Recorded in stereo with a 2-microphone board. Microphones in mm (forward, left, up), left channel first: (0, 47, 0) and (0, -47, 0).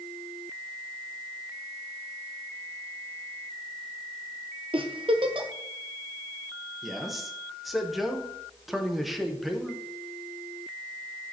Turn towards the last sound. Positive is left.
turn(degrees=0)  # may be behind; listen again after turning